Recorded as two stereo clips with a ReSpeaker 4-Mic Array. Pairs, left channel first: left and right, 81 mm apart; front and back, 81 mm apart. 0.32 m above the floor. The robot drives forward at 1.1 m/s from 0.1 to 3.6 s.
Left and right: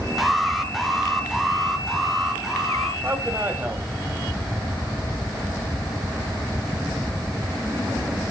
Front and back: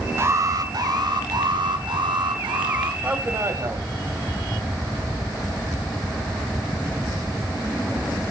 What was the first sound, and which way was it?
An alarm, straight behind.